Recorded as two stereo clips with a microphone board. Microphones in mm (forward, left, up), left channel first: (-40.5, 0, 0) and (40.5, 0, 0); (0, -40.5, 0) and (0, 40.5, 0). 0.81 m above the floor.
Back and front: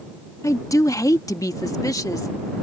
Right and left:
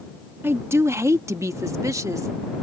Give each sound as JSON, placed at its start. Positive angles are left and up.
{"t": 0.4, "sound": "a woman speaking", "azimuth_deg": 145}